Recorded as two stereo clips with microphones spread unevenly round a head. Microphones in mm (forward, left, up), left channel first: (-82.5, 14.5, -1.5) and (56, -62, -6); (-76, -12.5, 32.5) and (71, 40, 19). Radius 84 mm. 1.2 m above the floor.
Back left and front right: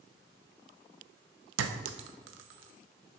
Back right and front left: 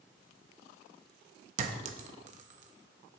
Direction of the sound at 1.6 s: 30° right.